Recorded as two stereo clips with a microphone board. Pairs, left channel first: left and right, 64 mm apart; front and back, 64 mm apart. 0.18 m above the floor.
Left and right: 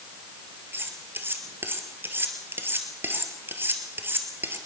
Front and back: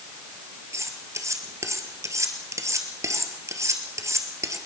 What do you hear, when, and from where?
0.7 s cutlery clinking: 145° right, 2 m